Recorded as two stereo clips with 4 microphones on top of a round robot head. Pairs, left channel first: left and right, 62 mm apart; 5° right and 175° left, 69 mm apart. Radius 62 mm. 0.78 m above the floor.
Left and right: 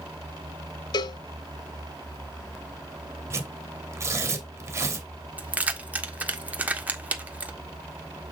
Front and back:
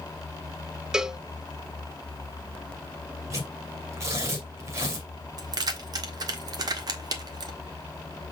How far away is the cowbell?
About 0.6 m.